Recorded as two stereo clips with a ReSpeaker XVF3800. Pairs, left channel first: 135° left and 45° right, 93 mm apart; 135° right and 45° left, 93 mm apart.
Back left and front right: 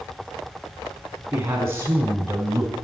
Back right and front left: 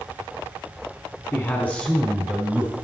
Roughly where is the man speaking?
Right.